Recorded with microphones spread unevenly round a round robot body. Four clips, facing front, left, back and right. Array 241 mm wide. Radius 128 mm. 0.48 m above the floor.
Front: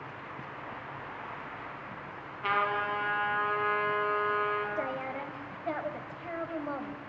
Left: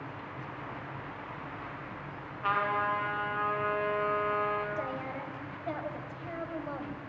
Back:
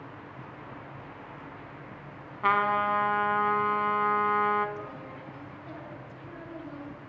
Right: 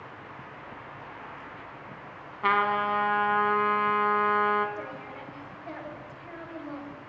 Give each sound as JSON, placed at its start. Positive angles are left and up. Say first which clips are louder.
{"t": 2.4, "sound": "a trumpet", "louder": "right 5 dB, back 5 dB", "azimuth_deg": -125, "distance_m": 1.3}
{"t": 4.8, "sound": "a woman speaking", "louder": "left 3 dB, front 7 dB", "azimuth_deg": 10, "distance_m": 2.0}